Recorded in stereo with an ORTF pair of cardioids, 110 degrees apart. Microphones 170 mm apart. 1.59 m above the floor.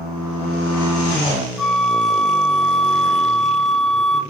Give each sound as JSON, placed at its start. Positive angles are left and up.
{"t": 1.6, "sound": "a flute", "azimuth_deg": 0, "distance_m": 0.7}